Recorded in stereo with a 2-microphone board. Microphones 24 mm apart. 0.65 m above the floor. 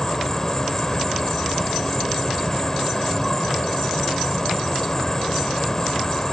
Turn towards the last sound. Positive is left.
turn(degrees=20)  # may be behind; listen again after turning